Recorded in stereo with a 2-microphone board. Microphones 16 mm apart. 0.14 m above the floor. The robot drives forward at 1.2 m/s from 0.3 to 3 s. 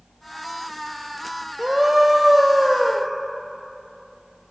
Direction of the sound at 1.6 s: 35° right (ahead or behind).